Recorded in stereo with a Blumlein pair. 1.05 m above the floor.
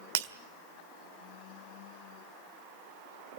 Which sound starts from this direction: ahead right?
Breaking glass, at 0.1 s.